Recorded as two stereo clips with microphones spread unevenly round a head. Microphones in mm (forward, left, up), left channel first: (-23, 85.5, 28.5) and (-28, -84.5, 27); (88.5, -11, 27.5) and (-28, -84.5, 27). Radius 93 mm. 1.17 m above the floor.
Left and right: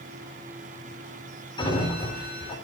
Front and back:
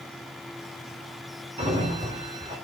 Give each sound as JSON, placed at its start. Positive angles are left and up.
{"t": 1.6, "sound": "a sliding door", "azimuth_deg": 150, "distance_m": 3.5}